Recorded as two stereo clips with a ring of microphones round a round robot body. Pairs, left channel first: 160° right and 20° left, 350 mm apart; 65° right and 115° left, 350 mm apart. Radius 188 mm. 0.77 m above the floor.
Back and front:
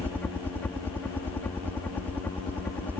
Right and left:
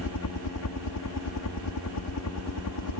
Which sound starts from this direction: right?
A helicopter, at 0.0 s.